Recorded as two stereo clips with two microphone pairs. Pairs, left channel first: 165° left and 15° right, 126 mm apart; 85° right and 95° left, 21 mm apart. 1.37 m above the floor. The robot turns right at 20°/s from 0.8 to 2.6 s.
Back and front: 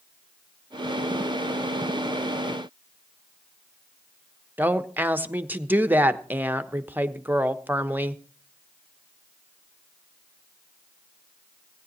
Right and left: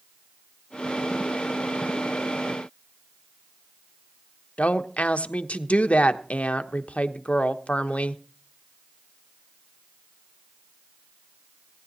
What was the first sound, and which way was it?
A woman speaking, 90° right.